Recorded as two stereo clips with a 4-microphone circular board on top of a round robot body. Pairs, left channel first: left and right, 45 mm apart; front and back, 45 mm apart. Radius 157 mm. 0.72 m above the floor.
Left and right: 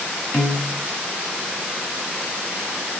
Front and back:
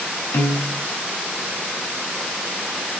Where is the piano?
25° left, 1.0 m.